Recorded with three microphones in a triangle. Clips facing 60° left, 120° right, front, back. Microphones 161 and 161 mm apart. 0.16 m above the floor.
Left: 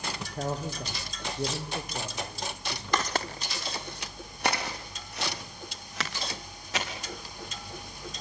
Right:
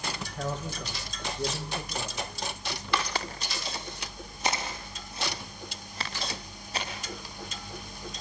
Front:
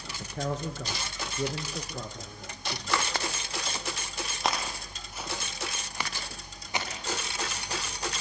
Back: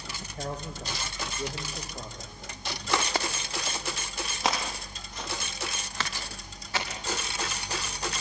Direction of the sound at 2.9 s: 110° left.